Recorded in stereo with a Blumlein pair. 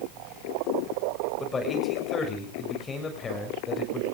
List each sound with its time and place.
1.4 s a man speaking: 15° left, 7 m